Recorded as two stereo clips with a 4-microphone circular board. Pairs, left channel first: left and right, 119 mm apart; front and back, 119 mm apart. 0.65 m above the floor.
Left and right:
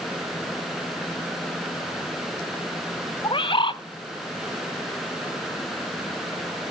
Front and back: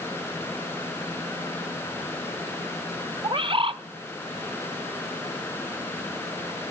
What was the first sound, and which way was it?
A bird, 135° left.